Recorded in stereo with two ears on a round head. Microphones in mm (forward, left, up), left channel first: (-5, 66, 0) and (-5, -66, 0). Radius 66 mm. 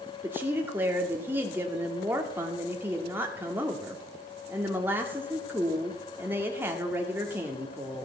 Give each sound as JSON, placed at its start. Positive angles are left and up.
{"t": 0.2, "sound": "a woman speaking", "side_deg": -15, "distance_m": 1.9}